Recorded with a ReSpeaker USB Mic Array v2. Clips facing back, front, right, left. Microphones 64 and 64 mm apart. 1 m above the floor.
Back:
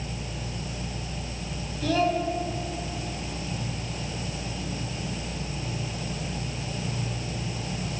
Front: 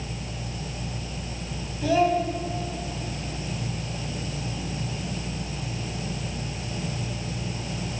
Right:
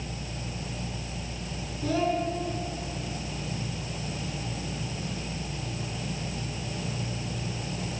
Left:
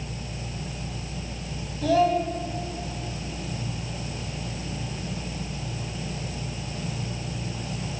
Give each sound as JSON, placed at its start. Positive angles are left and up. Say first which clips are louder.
{"t": 1.8, "sound": "a child speaking", "louder": "front 3 dB, left 6 dB", "azimuth_deg": 75, "distance_m": 6.0}